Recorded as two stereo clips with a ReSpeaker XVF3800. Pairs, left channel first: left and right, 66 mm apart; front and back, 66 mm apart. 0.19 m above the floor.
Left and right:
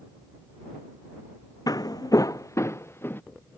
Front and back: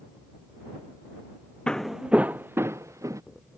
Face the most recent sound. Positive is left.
turn(degrees=145)